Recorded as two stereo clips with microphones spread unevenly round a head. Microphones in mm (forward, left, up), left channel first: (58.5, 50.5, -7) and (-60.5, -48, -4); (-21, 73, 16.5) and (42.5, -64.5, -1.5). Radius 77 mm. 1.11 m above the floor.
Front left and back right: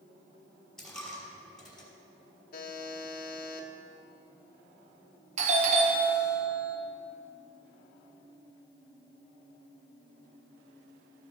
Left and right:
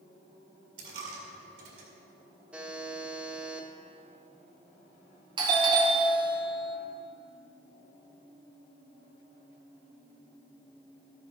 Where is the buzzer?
20° left, 1.0 m.